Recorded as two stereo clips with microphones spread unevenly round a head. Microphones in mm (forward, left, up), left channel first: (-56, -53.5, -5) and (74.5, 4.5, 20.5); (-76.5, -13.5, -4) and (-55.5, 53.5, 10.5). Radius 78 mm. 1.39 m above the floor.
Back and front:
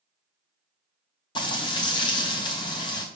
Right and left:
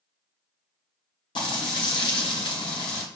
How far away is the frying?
About 2 m.